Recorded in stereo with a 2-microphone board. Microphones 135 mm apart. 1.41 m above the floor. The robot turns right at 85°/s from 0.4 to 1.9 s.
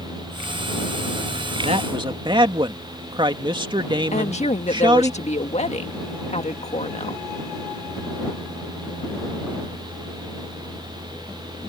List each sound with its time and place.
1.6 s a man speaking: 60° right (ahead or behind); by 5.1 s 40° right (ahead or behind)
4.1 s a woman speaking: 60° left (ahead or behind)